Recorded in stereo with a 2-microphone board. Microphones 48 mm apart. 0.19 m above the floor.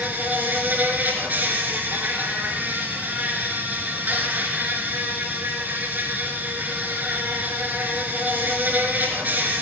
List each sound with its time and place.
0.0 s an insect: 35° right (ahead or behind), 2.5 m